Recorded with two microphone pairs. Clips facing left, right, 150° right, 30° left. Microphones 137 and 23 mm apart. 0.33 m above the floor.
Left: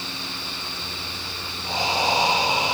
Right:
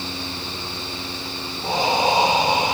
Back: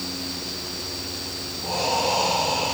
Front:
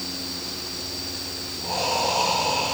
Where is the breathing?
55° right, 5 m.